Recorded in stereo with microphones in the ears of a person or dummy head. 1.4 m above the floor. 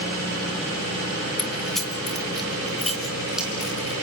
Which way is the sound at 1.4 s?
5° left (ahead or behind).